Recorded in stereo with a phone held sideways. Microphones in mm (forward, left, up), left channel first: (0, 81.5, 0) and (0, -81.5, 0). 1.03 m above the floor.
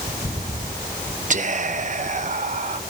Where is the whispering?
50° right (ahead or behind), 0.8 m.